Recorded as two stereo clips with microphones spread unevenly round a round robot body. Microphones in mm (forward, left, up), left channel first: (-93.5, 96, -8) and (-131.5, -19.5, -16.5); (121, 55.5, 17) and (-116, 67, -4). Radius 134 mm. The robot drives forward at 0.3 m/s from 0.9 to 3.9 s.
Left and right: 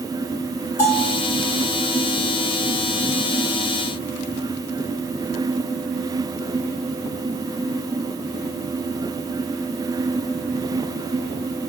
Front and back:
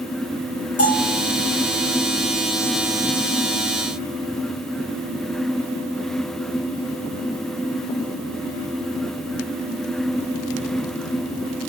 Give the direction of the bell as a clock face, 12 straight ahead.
11 o'clock.